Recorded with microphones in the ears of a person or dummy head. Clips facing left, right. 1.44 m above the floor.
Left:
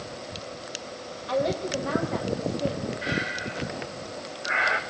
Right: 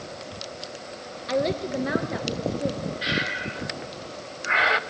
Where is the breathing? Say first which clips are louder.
Even; 35° right (ahead or behind), 0.8 m.